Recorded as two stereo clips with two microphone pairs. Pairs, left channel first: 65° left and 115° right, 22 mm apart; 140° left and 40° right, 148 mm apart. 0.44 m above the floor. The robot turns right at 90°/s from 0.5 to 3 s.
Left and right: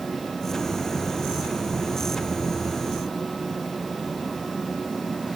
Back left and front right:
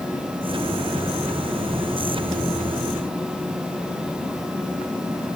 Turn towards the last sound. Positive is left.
No sound to turn to.